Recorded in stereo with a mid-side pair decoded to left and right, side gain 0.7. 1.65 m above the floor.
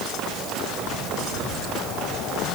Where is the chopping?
I don't hear chopping.